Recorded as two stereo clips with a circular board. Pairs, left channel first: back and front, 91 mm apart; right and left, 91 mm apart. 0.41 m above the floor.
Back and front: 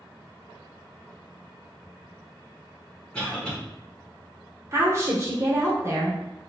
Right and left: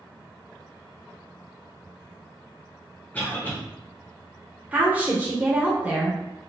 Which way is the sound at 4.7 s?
30° left.